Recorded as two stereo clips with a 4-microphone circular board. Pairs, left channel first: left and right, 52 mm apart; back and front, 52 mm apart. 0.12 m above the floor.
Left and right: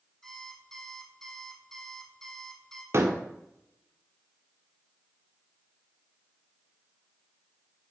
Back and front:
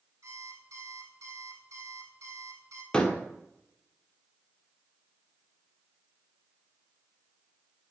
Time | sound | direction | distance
0.2 | an alarm clock | 10° left | 3 m
2.9 | a door slam | 110° right | 1.8 m